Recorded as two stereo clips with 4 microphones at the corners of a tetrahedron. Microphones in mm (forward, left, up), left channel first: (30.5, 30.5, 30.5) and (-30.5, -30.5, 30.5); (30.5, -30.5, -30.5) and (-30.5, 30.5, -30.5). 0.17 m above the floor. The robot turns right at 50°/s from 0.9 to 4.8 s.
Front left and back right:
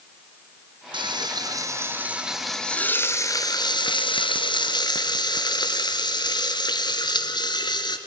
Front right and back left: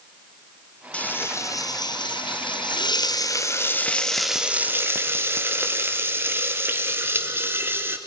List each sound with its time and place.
0.9 s frying: 120° right, 1.7 m; by 8.0 s 75° left, 1.7 m